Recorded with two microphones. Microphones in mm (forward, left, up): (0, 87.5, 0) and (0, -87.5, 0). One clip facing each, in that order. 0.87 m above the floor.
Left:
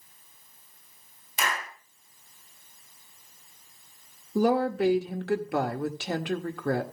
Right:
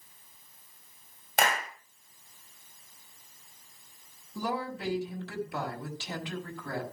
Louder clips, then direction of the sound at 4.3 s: Left 11 dB; 65° left (ahead or behind).